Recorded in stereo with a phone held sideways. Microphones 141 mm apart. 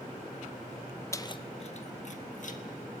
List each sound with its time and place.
1.1 s keys jangling: 20° left (ahead or behind), 0.7 m; by 2.6 s 60° left (ahead or behind), 1.8 m